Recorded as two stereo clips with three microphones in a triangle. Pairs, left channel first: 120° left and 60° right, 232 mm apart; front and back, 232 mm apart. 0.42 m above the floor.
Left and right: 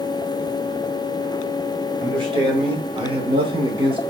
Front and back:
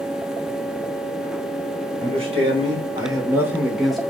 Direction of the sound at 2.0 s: 125° right.